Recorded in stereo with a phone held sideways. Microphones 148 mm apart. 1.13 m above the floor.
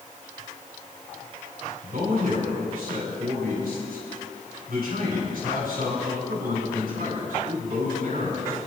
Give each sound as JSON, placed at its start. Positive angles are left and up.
{"t": 1.8, "sound": "a man speaking", "side_deg": -75, "distance_m": 7.0}